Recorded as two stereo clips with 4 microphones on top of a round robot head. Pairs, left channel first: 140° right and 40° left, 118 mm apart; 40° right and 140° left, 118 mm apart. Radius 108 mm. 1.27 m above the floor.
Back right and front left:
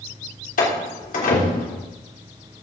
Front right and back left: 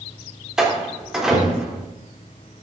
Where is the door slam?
135° right, 3 m.